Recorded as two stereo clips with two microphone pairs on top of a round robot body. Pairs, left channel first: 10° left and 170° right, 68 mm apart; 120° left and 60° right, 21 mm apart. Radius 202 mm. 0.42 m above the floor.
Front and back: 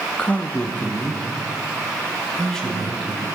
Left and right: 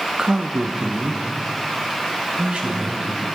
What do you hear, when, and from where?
0.2 s a man speaking: 50° right, 1.1 m; by 3.2 s 75° right, 4 m